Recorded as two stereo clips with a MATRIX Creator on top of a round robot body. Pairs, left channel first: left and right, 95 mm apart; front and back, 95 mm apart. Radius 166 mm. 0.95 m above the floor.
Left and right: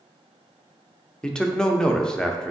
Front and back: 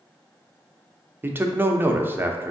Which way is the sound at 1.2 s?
160° left.